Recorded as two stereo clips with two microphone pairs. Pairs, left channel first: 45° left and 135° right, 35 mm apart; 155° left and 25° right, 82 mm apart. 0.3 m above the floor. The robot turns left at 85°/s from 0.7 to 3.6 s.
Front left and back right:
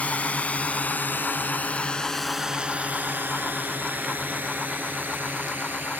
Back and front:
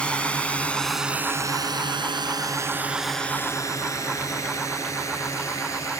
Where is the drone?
80° left; by 6.0 s 155° right.